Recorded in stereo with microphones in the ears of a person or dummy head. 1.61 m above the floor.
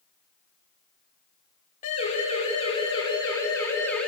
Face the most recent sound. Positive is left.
turn(degrees=5)  # may be behind; listen again after turning